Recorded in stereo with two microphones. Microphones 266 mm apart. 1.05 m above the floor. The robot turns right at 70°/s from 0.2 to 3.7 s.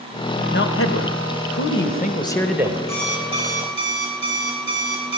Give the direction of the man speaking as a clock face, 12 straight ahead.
11 o'clock.